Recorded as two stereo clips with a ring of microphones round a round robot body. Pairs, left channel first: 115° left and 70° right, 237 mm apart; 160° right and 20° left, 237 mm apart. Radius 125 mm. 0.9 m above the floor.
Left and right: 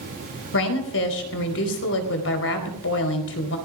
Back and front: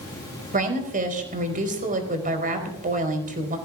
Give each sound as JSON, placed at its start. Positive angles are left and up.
{"t": 0.5, "sound": "a woman speaking", "azimuth_deg": 80, "distance_m": 4.5}